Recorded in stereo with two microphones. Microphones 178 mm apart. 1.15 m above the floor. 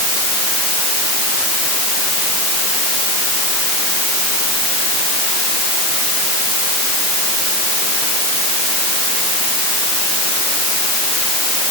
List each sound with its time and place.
Only background noise.